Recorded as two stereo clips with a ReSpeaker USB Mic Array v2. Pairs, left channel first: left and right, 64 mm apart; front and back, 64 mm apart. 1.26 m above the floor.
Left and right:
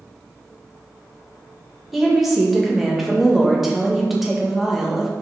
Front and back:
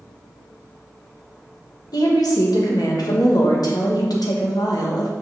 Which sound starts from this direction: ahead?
A woman speaking, at 1.9 s.